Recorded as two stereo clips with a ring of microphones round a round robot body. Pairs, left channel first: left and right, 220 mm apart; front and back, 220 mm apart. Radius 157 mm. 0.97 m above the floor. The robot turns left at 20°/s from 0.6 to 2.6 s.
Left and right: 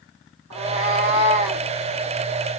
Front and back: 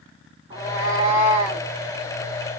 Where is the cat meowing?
110° right, 0.9 m; by 1.7 s 130° right, 0.9 m.